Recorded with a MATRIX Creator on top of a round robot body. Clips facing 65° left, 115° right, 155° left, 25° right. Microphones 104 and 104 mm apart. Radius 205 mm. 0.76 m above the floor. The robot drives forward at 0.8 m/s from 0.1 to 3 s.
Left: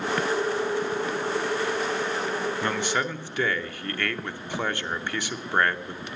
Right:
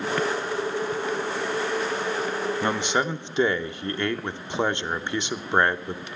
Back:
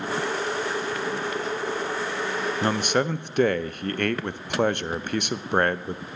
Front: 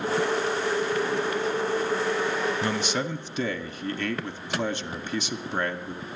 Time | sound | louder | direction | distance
2.6 | a man speaking | right 4 dB, back 4 dB | straight behind | 0.6 m